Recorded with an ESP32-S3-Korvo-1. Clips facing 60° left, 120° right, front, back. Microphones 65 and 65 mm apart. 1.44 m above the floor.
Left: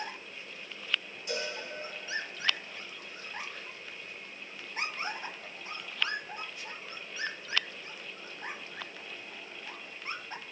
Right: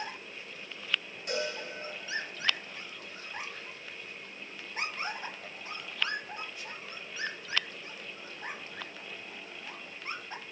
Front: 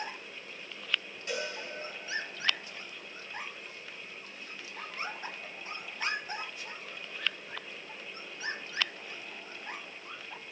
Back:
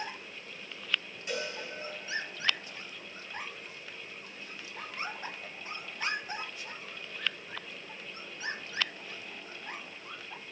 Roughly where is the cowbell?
Right.